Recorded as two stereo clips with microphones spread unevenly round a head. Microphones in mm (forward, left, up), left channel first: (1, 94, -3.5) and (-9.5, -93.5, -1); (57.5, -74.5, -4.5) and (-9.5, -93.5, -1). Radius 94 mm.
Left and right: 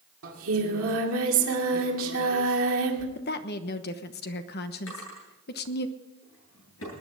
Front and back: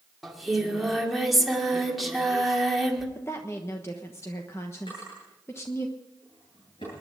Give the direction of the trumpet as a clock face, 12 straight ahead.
No trumpet in this recording.